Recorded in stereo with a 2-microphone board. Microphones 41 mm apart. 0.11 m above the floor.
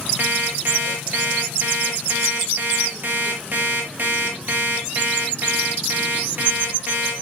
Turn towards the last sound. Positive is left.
turn(degrees=-50)  # may be behind; listen again after turning